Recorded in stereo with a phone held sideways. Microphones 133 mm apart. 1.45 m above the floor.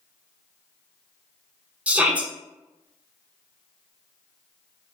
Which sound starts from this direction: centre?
A shout, at 1.9 s.